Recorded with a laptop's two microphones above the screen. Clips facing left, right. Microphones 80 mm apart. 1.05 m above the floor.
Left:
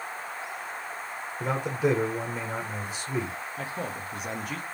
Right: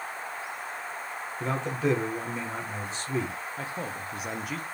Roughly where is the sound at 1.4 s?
Centre.